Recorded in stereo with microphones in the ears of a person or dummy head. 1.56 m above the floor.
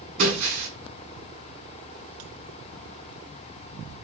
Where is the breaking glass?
45° right (ahead or behind), 7 m.